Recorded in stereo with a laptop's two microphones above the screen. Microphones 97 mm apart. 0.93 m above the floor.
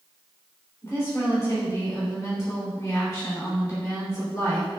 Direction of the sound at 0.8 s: 30° left (ahead or behind).